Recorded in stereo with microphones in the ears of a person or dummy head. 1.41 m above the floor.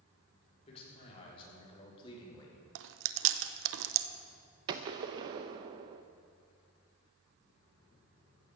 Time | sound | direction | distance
0.7 | a man speaking | 35° left (ahead or behind) | 4.5 m
2.8 | chewing | 70° right (ahead or behind) | 0.8 m
4.7 | a gunshot | 20° right (ahead or behind) | 0.6 m